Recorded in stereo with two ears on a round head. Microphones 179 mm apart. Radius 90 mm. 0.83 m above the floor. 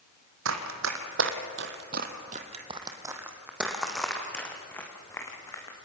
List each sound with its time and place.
0.5 s running footsteps: 75° right (ahead or behind), 3 m; by 5.8 s 20° left (ahead or behind), 5.5 m